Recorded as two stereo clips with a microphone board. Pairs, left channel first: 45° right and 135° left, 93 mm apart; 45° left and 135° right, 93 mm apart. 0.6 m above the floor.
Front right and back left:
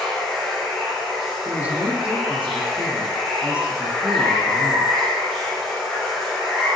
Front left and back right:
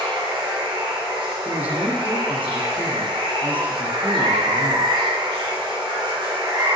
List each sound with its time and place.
0.0 s running water: 130° right, 1.4 m
1.4 s a man speaking: 175° right, 0.5 m